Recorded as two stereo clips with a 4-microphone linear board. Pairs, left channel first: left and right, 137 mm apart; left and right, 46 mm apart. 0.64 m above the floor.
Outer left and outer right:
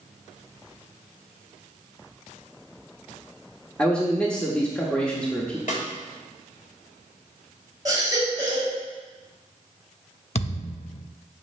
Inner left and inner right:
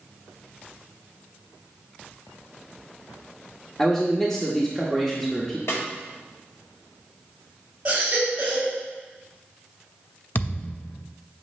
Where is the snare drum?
70° left (ahead or behind), 1.6 m.